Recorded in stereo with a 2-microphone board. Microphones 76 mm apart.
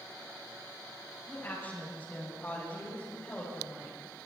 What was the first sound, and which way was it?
A woman speaking, 30° left (ahead or behind).